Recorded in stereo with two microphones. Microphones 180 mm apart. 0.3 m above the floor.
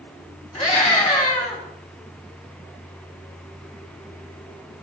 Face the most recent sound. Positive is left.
turn(degrees=40)  # may be behind; listen again after turning